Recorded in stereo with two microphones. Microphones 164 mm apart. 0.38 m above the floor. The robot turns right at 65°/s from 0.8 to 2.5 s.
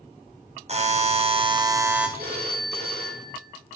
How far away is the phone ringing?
About 4.5 m.